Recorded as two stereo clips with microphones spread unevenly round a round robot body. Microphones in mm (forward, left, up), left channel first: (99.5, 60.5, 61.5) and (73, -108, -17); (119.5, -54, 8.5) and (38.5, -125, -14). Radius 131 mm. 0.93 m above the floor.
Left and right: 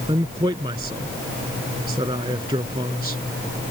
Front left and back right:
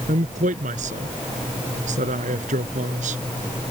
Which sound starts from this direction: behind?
A man speaking, at 0.1 s.